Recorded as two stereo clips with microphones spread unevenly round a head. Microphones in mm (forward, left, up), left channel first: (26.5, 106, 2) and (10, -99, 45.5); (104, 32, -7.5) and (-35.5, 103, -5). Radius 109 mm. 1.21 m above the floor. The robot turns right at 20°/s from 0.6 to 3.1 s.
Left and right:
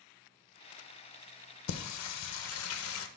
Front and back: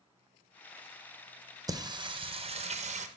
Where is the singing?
90° left, 0.5 m; by 3.1 s 115° left, 0.5 m.